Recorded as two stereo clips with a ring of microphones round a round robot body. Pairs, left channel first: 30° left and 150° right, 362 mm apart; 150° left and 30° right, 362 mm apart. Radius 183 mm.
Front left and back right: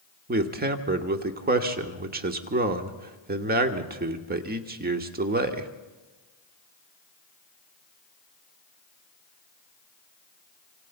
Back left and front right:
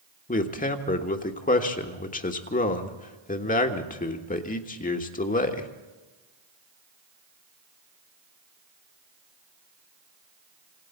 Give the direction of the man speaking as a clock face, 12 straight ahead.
6 o'clock.